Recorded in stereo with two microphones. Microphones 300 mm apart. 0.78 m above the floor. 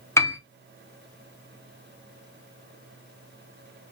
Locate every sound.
0.2 s a piano: 10° left (ahead or behind), 0.6 m